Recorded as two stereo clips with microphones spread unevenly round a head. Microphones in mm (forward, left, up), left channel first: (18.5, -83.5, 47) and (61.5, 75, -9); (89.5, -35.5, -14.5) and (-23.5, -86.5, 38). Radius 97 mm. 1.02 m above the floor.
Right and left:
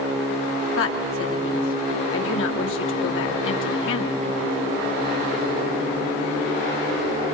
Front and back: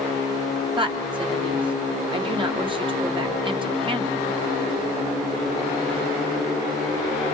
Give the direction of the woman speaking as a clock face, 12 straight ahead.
3 o'clock.